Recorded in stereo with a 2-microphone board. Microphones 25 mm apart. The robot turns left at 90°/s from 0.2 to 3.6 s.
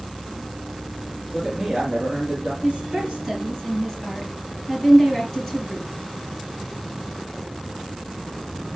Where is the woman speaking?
70° right (ahead or behind), 5 m; by 5.9 s 10° left (ahead or behind), 5 m.